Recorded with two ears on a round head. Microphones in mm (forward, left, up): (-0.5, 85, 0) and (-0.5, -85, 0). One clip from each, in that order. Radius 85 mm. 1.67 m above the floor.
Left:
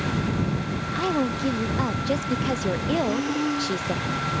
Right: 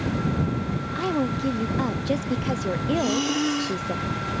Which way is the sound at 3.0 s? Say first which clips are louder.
Right 1 dB; 65° right (ahead or behind).